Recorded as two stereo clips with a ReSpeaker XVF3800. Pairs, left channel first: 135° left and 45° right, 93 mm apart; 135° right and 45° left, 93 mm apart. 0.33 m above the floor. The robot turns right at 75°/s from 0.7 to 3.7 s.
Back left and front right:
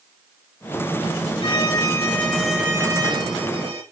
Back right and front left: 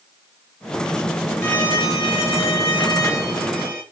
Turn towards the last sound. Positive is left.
turn(degrees=-40)